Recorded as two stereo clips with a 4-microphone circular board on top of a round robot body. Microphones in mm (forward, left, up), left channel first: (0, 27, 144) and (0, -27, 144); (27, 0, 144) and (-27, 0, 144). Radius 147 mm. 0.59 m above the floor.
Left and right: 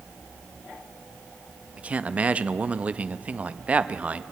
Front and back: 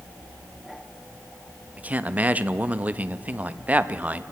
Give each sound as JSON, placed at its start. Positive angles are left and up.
{"t": 1.8, "sound": "a man speaking", "azimuth_deg": -140, "distance_m": 0.6}